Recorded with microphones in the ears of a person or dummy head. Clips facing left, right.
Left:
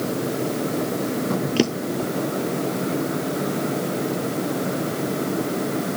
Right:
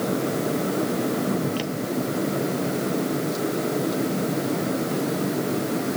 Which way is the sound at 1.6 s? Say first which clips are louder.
Left 4 dB; 75° left (ahead or behind).